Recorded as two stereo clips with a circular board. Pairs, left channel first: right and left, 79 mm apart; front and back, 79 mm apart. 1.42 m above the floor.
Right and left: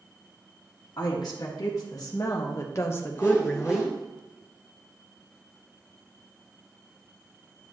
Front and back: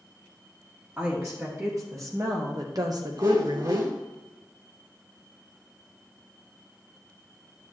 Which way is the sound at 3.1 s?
140° right.